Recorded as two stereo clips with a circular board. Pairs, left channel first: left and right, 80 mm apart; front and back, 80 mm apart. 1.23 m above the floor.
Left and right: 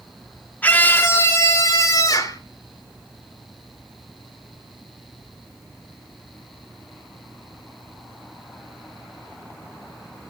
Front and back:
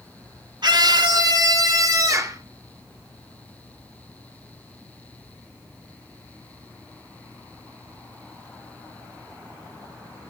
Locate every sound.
0.6 s a scream: 160° left, 2.5 m; by 2.4 s 130° left, 4.5 m